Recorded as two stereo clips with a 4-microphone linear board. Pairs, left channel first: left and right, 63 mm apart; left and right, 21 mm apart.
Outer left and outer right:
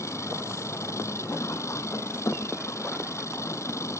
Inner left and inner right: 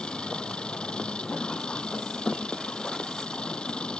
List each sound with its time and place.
0.0 s an engine running: 50° left (ahead or behind)